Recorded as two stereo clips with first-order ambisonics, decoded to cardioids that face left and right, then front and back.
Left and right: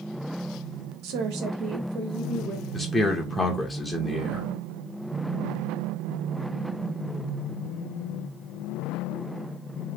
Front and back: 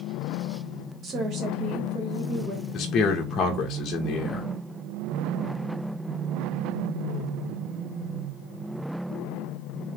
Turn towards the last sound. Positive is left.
turn(degrees=5)